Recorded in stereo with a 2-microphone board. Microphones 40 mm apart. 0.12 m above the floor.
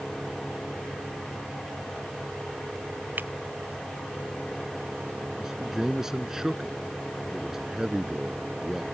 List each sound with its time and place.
3.2 s breaking glass: 55° right (ahead or behind)
5.4 s a man speaking: 10° right (ahead or behind)